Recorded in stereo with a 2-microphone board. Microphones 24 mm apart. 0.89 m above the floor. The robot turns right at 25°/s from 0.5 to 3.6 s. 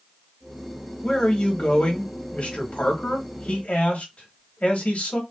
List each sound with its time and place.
1.0 s a man speaking: 40° left, 1.4 m; by 5.2 s 105° left, 1.4 m